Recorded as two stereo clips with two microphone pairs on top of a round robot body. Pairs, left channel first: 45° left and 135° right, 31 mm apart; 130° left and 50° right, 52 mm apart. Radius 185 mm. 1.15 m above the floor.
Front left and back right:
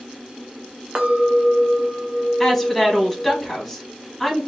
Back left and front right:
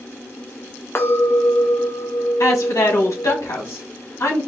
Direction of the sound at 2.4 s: 135° left.